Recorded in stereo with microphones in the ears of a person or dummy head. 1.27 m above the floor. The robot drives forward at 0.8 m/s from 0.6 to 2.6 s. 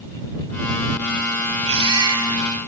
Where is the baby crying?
30° right (ahead or behind), 2 m; by 2.5 s 20° right (ahead or behind), 2.5 m.